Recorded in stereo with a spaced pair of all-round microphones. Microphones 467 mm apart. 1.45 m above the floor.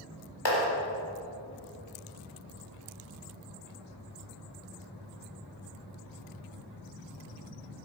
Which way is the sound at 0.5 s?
65° left (ahead or behind).